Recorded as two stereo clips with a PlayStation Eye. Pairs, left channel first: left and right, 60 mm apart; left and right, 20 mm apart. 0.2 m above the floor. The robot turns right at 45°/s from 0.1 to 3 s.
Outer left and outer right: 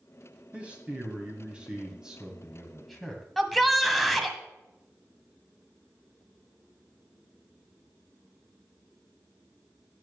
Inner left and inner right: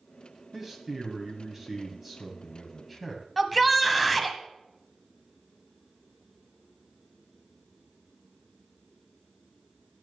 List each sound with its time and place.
0.5 s a man speaking: 20° right (ahead or behind), 1.6 m; by 4.4 s centre (ahead or behind), 1.6 m
3.4 s a shout: centre (ahead or behind), 1.0 m